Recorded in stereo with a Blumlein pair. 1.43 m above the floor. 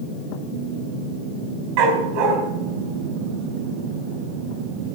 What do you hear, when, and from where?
1.8 s a dog barking: 40° right, 4.5 m